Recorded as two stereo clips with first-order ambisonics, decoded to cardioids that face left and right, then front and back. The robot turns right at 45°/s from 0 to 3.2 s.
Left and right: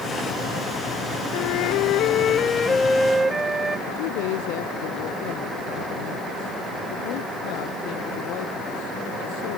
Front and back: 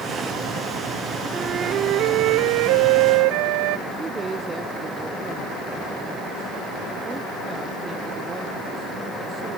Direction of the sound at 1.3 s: 105° left.